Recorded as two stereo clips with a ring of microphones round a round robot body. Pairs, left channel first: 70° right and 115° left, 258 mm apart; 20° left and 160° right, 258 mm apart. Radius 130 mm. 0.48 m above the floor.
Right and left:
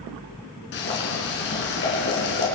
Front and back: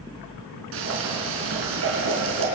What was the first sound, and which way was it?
Boiling, 115° right.